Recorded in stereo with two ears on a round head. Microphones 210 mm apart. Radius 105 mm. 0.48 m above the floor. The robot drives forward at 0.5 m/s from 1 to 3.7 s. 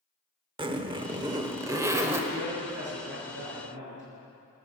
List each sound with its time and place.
0.6 s a zipper: 20° right (ahead or behind), 0.7 m; by 2.2 s 10° right (ahead or behind), 1.2 m
2.3 s a man speaking: 50° right (ahead or behind), 6.5 m; by 4.0 s 55° right (ahead or behind), 6 m